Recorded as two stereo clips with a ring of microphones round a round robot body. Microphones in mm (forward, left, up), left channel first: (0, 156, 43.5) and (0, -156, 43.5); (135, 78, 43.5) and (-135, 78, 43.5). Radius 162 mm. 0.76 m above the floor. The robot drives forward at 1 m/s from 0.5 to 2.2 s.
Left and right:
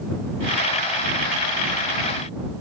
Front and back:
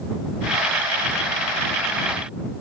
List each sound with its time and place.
Only background noise.